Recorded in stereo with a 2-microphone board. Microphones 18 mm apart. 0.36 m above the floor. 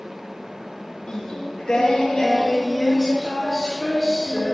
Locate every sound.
1.1 s singing: 55° left (ahead or behind), 2.5 m